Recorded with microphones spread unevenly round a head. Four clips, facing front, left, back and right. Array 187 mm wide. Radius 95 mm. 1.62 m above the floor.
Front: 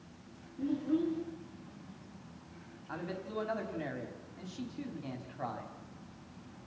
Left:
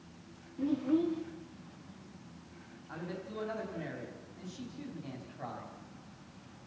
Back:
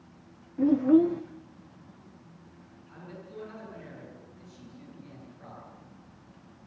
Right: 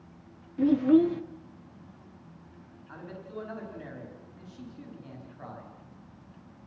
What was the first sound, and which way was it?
A child speaking, 155° right.